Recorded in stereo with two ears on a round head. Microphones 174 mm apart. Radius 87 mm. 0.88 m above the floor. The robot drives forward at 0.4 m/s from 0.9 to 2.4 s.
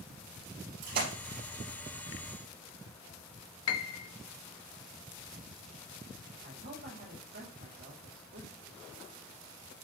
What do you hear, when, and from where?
0.8 s a splash: 45° right (ahead or behind), 4.5 m
3.7 s a piano: 85° left, 0.5 m
6.4 s a man speaking: 70° right (ahead or behind), 2 m